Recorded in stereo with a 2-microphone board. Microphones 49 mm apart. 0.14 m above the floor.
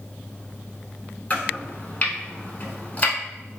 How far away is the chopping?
About 0.7 m.